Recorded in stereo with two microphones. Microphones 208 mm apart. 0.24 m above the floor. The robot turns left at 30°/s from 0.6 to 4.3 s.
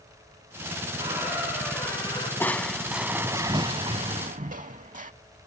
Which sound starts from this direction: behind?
A squeak, at 1.0 s.